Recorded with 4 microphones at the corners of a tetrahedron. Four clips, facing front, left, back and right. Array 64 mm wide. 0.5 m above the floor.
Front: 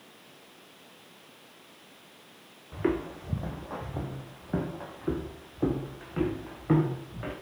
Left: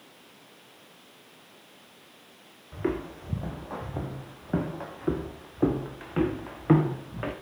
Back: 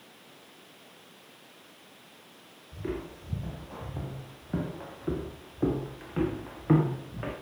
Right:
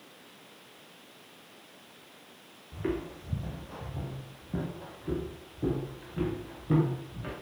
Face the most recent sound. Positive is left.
turn(degrees=95)